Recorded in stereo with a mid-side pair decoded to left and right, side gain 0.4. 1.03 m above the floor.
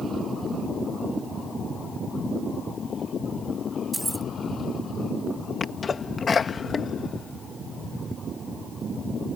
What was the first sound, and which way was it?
Keys jangling, 5° right.